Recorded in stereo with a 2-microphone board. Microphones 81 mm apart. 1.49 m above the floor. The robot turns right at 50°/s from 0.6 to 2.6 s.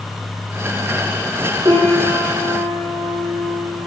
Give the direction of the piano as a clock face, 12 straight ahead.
4 o'clock.